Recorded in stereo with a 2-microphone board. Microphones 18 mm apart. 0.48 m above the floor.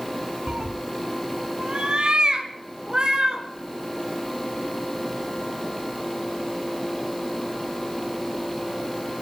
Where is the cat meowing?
70° right (ahead or behind), 0.6 m; by 3.4 s 45° right (ahead or behind), 2.5 m.